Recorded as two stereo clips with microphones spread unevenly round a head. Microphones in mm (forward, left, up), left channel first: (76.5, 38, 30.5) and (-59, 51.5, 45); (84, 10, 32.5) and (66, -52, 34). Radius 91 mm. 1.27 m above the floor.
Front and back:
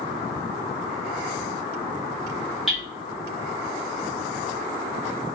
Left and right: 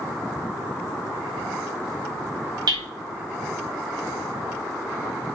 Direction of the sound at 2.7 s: 95° right.